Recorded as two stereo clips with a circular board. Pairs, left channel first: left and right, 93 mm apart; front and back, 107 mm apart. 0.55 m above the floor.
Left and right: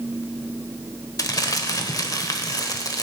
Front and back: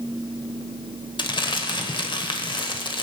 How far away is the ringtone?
No ringtone in this recording.